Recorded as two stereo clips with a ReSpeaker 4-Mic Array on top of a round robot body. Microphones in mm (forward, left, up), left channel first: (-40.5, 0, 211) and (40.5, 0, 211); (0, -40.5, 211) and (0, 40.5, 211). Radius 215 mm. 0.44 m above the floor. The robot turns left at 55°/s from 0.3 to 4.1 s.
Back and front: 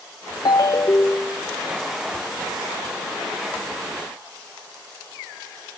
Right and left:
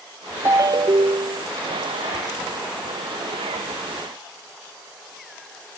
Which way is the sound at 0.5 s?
145° left.